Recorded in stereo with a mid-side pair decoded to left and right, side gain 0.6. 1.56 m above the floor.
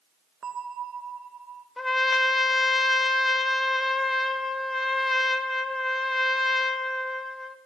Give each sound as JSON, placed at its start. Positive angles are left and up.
{"t": 0.4, "sound": "a bell", "azimuth_deg": -35, "distance_m": 1.9}
{"t": 1.8, "sound": "a trumpet", "azimuth_deg": 15, "distance_m": 1.3}